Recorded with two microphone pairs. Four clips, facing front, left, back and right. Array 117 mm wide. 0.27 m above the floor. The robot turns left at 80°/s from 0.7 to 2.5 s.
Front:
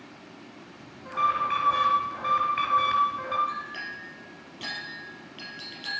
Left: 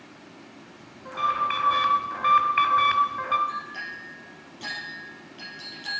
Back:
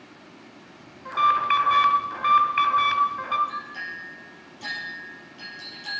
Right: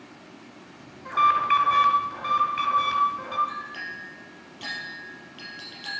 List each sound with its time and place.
1.1 s an alarm: 125° right, 1.7 m; by 3.4 s 120° left, 1.7 m
3.5 s a clink: 25° right, 4.5 m